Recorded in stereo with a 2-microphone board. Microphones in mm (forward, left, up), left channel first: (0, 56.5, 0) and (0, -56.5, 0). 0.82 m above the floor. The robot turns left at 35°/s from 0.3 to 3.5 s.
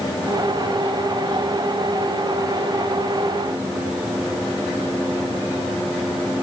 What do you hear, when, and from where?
Only background noise.